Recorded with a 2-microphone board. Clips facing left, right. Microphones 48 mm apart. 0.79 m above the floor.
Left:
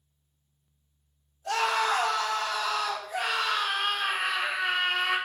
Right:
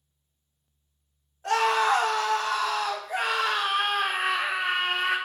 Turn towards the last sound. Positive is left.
turn(degrees=-45)  # may be behind; listen again after turning